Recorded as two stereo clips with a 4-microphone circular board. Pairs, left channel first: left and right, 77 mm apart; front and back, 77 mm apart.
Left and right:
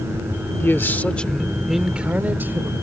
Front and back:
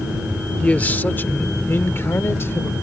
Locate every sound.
0.6 s a man speaking: 60° left; by 2.7 s 45° right